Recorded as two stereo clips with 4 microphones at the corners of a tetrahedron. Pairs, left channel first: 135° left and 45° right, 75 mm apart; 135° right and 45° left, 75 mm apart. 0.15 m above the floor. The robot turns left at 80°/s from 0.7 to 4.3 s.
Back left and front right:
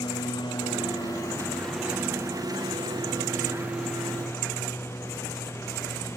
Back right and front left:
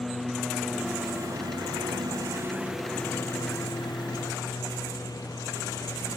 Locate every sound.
0.0 s a lawn mower: 135° left; by 6.2 s 170° right